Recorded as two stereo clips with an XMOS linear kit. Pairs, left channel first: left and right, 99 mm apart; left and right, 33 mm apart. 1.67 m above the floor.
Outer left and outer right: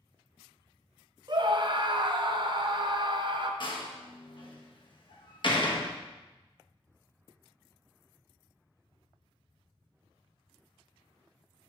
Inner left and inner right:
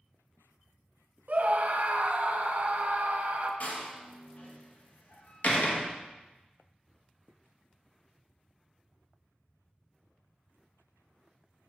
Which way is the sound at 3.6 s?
50° left (ahead or behind).